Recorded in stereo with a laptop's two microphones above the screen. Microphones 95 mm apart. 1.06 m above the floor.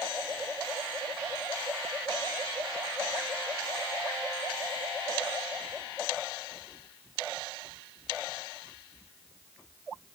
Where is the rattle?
I don't hear a rattle.